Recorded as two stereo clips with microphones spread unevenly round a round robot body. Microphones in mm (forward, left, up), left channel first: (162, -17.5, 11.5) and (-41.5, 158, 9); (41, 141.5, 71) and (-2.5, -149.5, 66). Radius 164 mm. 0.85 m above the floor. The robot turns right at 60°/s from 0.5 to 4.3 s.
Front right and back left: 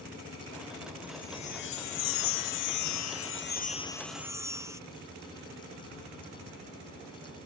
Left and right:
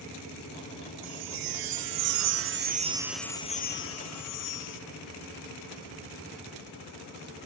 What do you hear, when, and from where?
1.0 s a chime: 135° right; by 4.8 s 60° left